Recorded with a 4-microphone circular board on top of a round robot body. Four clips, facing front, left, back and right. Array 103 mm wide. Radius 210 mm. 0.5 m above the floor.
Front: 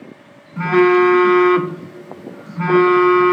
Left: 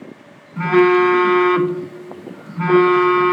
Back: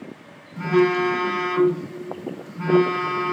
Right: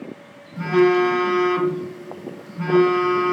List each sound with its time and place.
0.6 s a phone buzzing: 40° left, 0.5 m